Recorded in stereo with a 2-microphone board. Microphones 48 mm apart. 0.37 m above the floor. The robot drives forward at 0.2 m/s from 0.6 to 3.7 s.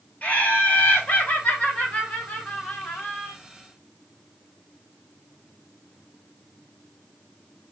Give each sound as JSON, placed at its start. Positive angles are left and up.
{"t": 0.2, "sound": "laughter", "side_deg": 30, "distance_m": 1.5}